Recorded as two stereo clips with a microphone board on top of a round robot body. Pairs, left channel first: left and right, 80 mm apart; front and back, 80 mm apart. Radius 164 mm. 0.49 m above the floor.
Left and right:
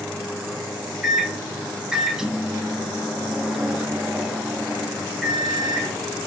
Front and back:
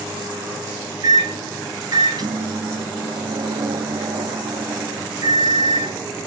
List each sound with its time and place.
1.0 s a microwave: 170° right, 0.6 m